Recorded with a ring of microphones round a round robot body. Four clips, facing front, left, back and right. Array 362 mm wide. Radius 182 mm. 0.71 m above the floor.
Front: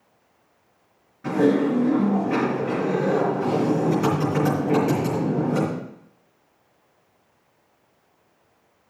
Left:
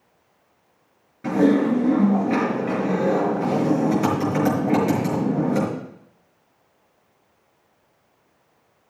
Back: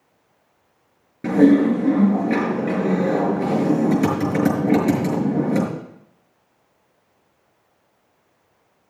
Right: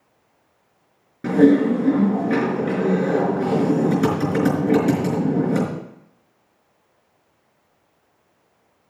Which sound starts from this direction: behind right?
Typing on a keyboard, at 1.2 s.